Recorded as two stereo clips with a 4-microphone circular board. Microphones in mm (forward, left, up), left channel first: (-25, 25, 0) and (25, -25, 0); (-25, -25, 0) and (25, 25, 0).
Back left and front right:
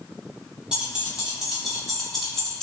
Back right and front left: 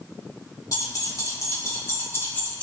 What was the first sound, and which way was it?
Keys jangling, 120° right.